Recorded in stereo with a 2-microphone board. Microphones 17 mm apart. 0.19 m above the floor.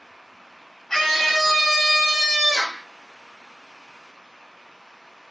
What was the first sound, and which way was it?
A scream, 15° left (ahead or behind).